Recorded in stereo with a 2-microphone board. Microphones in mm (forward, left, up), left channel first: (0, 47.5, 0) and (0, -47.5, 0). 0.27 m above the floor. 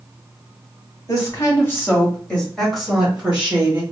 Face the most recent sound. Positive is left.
turn(degrees=-20)  # may be behind; listen again after turning